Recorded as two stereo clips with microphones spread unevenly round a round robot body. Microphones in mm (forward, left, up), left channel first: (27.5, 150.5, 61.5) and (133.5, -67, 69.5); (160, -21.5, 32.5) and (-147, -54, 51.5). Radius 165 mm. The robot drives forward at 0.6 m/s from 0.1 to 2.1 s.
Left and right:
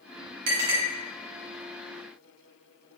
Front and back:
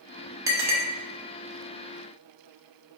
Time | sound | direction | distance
0.5 | a clink | 90° right | 0.8 m